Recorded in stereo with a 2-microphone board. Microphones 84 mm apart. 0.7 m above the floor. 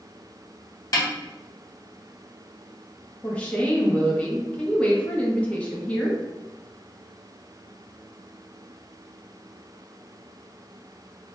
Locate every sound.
0.9 s a snare drum: 45° left (ahead or behind), 1.3 m
3.2 s a woman speaking: 15° left (ahead or behind), 0.8 m